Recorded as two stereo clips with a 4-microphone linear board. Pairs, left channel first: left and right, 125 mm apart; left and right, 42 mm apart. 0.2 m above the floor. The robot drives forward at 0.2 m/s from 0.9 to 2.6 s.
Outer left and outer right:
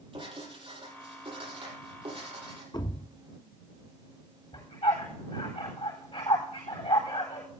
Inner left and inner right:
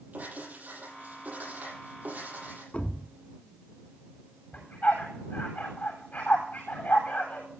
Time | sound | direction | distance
0.1 | writing | 40° right (ahead or behind) | 8 m
2.7 | a thud | 40° left (ahead or behind) | 0.6 m
4.5 | a dog barking | 50° left (ahead or behind) | 8.5 m